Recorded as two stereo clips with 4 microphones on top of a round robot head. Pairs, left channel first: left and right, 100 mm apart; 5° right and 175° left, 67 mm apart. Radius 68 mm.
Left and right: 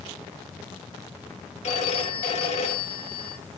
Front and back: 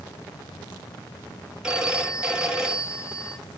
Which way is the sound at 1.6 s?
95° left.